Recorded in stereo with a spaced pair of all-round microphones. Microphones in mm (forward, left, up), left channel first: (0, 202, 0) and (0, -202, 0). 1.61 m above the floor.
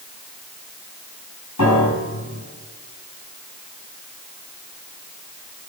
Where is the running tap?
I don't hear a running tap.